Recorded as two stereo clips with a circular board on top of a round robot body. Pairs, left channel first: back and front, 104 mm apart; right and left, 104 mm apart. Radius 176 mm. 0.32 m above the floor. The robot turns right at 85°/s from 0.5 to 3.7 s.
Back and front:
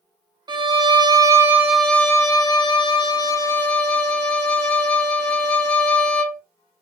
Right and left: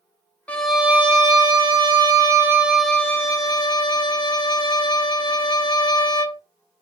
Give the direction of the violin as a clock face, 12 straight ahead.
1 o'clock.